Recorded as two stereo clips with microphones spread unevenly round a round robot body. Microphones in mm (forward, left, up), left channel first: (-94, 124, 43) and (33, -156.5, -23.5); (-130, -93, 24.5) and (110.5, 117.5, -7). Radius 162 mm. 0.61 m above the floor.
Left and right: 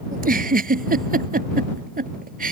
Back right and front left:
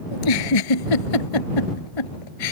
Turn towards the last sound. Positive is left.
turn(degrees=-130)